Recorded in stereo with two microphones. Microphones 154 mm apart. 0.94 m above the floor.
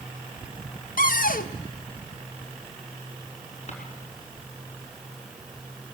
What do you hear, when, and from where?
1.0 s a cupboard door: 65° left (ahead or behind), 0.6 m
3.7 s a drawer: 50° left (ahead or behind), 5 m